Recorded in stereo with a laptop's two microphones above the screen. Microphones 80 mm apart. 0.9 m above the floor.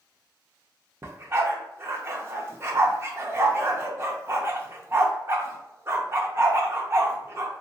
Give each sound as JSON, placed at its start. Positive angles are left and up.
{"t": 1.0, "sound": "a dog barking", "side_deg": -30, "distance_m": 0.5}